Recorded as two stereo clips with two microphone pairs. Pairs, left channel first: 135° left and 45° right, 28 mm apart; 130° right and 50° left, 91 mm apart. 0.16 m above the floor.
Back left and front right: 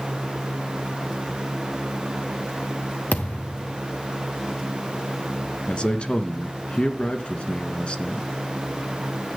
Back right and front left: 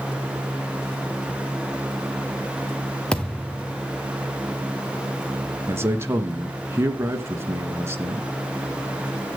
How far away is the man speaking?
About 1.9 m.